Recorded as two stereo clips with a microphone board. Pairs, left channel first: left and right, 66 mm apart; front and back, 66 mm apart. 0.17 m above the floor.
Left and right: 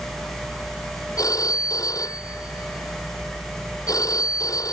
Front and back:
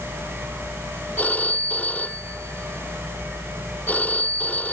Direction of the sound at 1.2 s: 65° left.